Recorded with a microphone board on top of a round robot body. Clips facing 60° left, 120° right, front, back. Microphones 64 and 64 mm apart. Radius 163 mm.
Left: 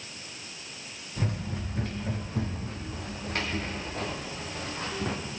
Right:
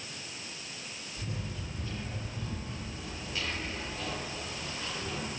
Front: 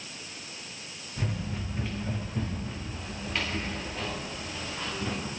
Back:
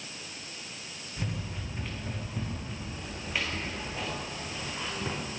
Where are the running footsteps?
90° left, 7 m; by 5.2 s 105° left, 5.5 m.